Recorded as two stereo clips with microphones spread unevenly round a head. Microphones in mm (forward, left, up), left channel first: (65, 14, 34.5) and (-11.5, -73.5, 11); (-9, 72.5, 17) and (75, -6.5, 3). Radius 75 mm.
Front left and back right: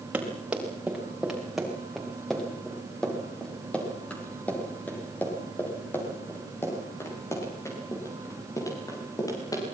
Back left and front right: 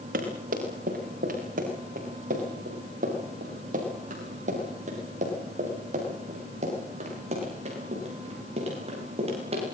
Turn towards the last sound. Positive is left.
turn(degrees=-10)